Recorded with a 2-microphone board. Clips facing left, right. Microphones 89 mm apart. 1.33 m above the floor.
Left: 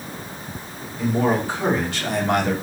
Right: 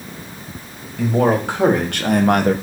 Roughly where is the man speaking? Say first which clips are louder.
Right 4 dB; right.